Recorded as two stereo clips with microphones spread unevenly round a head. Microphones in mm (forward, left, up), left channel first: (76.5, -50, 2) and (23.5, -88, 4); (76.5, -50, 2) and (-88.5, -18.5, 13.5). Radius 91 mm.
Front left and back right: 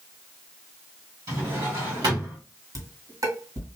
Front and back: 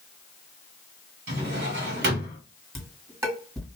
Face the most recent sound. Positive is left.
turn(degrees=-115)